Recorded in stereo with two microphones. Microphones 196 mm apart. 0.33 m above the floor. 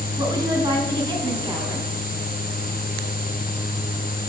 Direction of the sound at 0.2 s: 25° right (ahead or behind).